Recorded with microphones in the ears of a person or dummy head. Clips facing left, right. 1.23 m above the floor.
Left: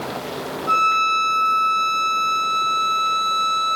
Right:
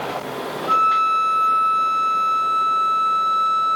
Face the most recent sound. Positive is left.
turn(degrees=65)  # may be behind; listen again after turning